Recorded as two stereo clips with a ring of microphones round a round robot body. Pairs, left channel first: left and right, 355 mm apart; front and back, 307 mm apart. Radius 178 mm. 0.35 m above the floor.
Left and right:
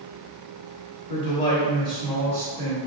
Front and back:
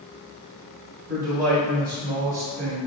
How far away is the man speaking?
About 1.9 m.